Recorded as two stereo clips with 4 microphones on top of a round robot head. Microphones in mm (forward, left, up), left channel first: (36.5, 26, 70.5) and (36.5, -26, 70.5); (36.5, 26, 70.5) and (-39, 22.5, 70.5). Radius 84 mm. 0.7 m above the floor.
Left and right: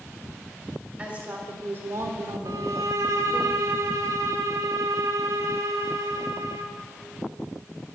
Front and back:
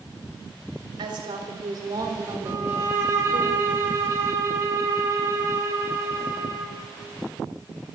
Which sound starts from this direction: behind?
A woman speaking, at 1.0 s.